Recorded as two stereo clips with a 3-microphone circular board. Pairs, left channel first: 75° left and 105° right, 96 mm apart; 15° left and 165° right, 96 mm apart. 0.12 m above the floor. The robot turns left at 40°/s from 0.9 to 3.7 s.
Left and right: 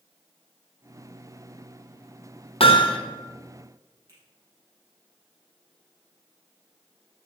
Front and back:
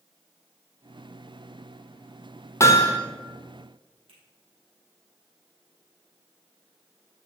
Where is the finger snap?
160° right, 4 m.